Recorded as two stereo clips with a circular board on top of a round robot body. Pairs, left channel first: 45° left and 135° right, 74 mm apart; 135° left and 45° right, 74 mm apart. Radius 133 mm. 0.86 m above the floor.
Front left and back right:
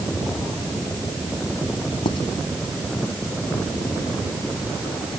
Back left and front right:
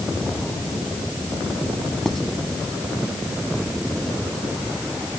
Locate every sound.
2.0 s writing: 50° left